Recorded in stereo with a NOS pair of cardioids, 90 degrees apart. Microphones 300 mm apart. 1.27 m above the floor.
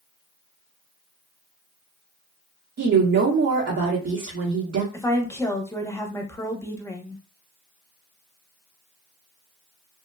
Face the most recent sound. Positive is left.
turn(degrees=10)